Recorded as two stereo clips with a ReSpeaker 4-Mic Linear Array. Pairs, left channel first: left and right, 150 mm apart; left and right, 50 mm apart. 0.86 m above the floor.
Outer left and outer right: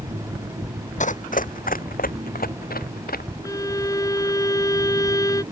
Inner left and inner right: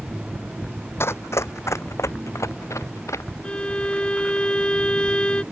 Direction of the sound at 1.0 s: 55° left (ahead or behind).